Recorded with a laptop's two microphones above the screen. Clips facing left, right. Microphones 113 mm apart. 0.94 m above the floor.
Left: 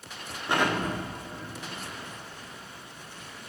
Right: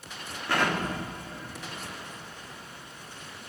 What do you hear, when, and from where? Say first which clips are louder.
0.5 s an explosion: left 1 dB; 20° left (ahead or behind), 1.9 m